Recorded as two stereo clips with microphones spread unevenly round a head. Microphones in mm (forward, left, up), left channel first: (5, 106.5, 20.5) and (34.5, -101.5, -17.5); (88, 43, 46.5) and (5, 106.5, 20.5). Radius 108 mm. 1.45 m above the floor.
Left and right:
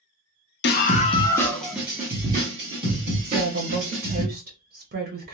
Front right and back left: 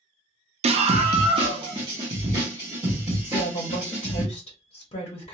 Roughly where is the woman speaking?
Ahead right.